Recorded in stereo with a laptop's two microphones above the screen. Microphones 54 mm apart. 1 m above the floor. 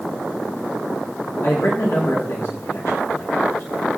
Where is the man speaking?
65° left (ahead or behind), 2 m.